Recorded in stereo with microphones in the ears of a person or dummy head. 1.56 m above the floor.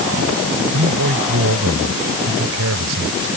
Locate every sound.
0.7 s a man speaking: 85° right